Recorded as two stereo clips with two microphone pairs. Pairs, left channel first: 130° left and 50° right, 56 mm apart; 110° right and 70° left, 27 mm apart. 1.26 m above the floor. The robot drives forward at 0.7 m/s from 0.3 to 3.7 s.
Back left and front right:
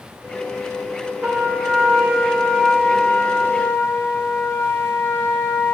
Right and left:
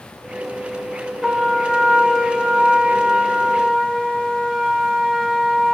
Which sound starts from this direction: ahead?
A trumpet, at 1.2 s.